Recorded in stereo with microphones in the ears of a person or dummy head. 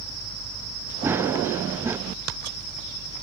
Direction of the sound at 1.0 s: 10° right (ahead or behind).